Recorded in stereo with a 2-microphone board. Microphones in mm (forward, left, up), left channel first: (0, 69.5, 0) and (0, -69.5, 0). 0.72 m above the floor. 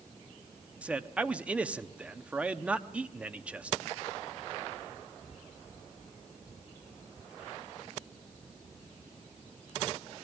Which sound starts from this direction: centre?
A man speaking, at 0.8 s.